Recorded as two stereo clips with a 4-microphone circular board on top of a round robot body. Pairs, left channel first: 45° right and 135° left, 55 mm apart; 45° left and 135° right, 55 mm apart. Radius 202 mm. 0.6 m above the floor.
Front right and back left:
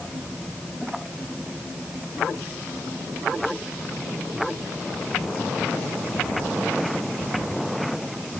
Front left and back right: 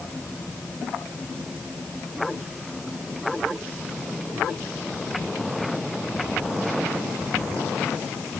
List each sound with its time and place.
Only background noise.